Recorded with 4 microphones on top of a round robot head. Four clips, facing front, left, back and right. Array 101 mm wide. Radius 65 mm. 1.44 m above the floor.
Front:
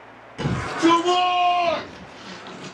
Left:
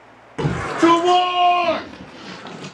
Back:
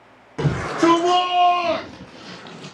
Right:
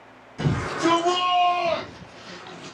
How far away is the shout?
About 3.5 m.